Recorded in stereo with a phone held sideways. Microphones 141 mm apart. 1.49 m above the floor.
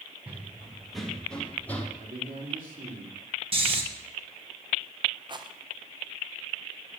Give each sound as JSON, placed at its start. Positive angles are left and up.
{"t": 0.3, "sound": "running footsteps", "side_deg": -10, "distance_m": 2.5}
{"t": 2.0, "sound": "a man speaking", "side_deg": -90, "distance_m": 3.5}
{"t": 3.5, "sound": "snoring", "side_deg": -45, "distance_m": 1.8}
{"t": 5.3, "sound": "a rattle", "side_deg": -35, "distance_m": 0.9}